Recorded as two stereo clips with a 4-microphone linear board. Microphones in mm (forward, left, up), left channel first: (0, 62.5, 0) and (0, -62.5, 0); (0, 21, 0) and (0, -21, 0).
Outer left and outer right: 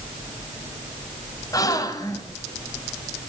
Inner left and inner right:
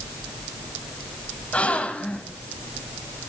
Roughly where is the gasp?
Left.